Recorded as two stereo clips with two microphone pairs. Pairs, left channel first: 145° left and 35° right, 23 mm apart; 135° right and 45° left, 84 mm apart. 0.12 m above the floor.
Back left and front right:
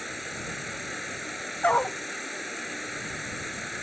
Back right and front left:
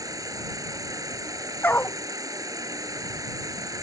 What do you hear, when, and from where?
0.0 s an insect: 50° left
1.6 s a dog barking: 155° left